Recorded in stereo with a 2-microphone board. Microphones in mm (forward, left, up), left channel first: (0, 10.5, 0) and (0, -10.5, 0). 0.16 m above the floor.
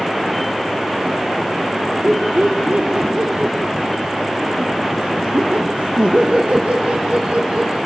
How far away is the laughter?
About 3.5 m.